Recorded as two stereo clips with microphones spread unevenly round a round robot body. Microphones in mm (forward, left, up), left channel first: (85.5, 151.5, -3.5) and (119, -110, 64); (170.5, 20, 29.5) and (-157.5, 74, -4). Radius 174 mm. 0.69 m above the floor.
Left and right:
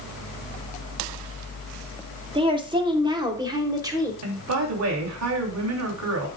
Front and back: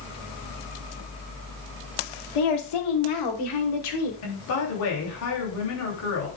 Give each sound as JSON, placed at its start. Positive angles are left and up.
{"t": 2.4, "sound": "a woman speaking", "azimuth_deg": -5, "distance_m": 2.5}
{"t": 4.2, "sound": "a woman speaking", "azimuth_deg": -60, "distance_m": 3.0}